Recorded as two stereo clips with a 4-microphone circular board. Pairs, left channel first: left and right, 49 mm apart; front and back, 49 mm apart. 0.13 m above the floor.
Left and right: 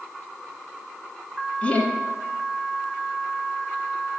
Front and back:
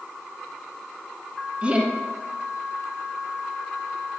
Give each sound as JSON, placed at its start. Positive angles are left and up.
{"t": 1.6, "sound": "laughter", "azimuth_deg": 135, "distance_m": 1.2}